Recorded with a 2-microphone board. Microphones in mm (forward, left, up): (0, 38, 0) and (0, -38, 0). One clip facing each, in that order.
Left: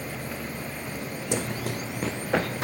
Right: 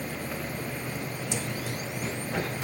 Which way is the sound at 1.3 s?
55° left (ahead or behind).